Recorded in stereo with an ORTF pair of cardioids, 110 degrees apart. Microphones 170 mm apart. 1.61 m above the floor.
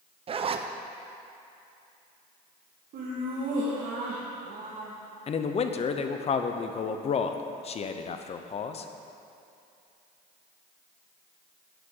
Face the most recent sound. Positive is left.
turn(degrees=40)